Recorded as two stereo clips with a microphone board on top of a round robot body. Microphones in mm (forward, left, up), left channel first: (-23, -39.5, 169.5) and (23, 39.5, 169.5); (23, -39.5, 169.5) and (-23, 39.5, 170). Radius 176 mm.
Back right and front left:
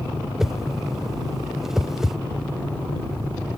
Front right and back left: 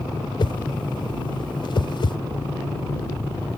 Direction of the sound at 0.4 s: 25° right.